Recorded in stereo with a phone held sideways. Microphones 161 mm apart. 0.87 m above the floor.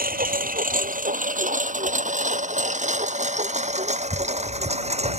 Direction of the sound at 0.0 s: 65° right (ahead or behind).